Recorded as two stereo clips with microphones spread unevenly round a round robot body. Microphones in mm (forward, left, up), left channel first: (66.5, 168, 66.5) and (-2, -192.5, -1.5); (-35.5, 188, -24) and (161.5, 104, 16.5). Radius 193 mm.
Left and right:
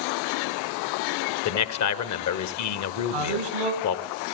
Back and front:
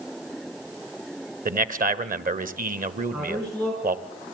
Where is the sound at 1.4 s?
30° left, 1.7 m.